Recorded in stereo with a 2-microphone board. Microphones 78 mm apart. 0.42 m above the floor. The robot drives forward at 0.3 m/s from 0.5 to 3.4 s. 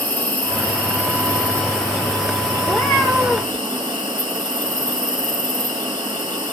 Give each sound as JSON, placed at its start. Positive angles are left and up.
{"t": 0.0, "sound": "an insect", "side_deg": 15, "distance_m": 1.1}
{"t": 2.6, "sound": "a cat meowing", "side_deg": 5, "distance_m": 2.0}